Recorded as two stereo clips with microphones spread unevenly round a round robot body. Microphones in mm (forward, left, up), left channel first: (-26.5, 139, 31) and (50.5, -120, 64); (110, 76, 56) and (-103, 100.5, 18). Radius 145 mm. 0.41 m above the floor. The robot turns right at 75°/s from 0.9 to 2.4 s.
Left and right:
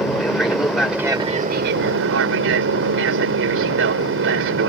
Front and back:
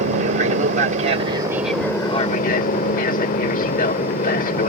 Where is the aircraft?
170° right; by 4.7 s 55° right.